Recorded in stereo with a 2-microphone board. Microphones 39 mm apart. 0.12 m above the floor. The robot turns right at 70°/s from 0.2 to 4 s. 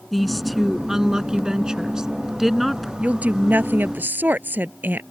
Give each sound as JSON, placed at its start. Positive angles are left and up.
{"t": 0.1, "sound": "a woman speaking", "side_deg": 5}
{"t": 3.0, "sound": "a woman speaking", "azimuth_deg": -145}